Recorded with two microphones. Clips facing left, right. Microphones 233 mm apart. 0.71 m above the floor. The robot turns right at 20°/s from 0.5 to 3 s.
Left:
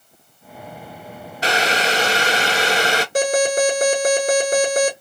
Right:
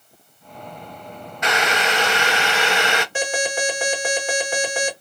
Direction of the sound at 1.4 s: 65° left.